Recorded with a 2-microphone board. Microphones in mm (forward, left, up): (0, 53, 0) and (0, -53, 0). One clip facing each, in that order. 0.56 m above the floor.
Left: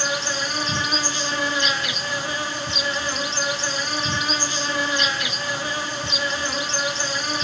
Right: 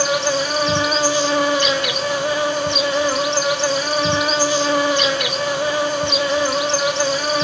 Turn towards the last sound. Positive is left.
turn(degrees=-70)  # may be behind; listen again after turning